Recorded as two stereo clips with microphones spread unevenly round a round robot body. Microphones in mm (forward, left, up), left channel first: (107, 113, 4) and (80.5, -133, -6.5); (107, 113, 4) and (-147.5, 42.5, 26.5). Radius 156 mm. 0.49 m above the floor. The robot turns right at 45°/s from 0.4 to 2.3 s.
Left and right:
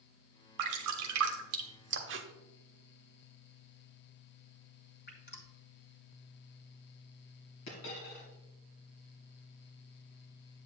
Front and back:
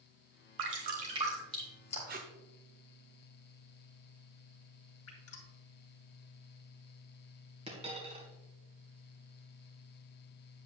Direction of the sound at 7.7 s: 125° left.